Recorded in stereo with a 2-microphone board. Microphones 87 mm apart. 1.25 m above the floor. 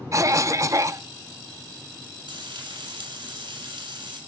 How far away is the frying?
About 7 m.